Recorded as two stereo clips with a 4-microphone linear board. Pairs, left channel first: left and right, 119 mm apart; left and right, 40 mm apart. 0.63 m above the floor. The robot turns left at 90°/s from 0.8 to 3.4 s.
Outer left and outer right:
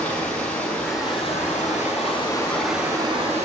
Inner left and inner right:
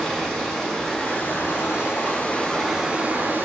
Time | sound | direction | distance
0.0 | running water | 170° left | 5.5 m